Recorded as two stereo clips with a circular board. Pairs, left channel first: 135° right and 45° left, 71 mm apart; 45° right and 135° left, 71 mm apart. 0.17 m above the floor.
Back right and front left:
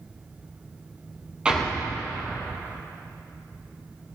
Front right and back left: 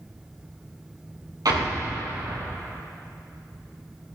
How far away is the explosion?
About 3 m.